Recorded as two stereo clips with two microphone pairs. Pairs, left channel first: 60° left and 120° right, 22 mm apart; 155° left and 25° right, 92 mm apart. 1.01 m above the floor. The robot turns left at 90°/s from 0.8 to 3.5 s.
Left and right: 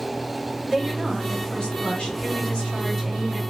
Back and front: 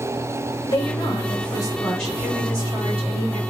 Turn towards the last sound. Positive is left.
turn(degrees=-60)